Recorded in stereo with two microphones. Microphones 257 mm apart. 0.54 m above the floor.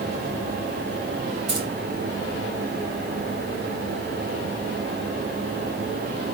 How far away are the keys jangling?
About 2.5 m.